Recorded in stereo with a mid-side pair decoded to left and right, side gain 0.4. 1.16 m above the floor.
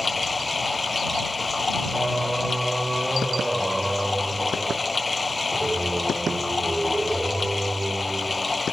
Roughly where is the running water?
Ahead.